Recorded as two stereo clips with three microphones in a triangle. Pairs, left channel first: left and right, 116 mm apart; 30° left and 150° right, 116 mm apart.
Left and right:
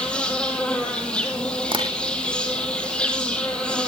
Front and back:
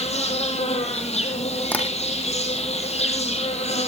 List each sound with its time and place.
0.0 s an insect: 10° left, 3.5 m
1.7 s tapping: 50° right, 4 m